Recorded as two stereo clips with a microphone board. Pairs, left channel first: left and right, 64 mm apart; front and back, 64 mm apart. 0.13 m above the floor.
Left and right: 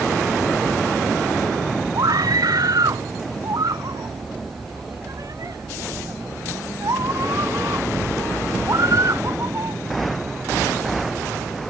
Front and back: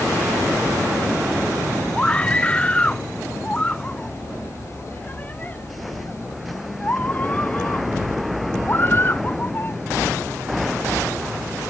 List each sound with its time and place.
1.9 s a scream: 75° right; by 9.8 s 55° right